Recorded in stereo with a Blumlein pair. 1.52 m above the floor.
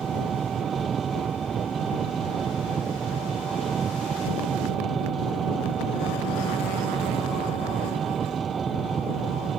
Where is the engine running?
20° right.